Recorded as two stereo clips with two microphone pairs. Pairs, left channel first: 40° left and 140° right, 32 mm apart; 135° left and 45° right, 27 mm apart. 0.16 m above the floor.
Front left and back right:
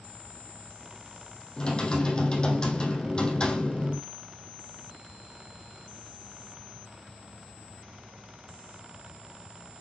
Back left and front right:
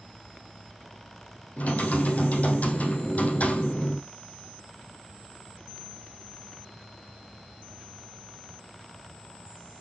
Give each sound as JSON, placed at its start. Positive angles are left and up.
{"t": 1.6, "sound": "typing on a keyboard", "azimuth_deg": 100, "distance_m": 2.5}